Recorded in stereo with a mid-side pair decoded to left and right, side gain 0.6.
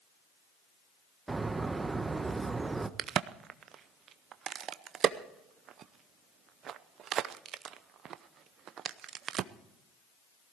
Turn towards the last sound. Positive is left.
turn(degrees=-50)